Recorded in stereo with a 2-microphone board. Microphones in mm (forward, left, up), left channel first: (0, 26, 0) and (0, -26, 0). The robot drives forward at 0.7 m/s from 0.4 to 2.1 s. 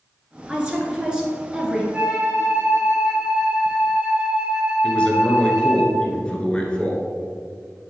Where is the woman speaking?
10° right (ahead or behind), 1.2 m; by 1.8 s 15° right (ahead or behind), 1.2 m.